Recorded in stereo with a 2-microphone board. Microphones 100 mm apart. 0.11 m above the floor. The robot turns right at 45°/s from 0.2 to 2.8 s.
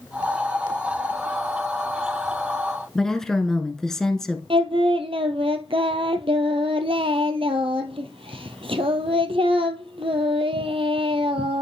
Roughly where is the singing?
Right.